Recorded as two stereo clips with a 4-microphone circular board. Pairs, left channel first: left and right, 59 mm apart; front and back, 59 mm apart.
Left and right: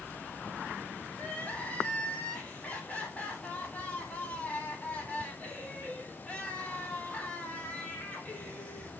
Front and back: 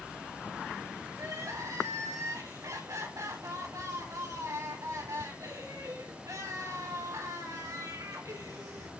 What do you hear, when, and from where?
1.1 s crying: 155° left, 3.5 m